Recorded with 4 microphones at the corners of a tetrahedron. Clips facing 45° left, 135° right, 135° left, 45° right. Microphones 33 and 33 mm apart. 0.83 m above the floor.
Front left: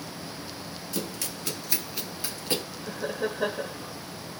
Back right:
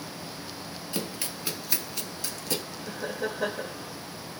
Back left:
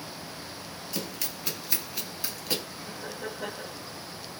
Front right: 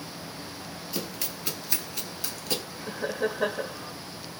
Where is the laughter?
35° right, 0.6 m.